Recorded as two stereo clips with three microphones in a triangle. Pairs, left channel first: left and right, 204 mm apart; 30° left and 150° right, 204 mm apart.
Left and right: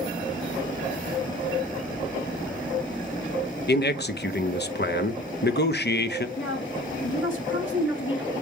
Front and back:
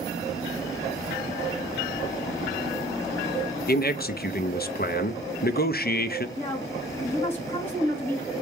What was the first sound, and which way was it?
A man speaking, 65° left.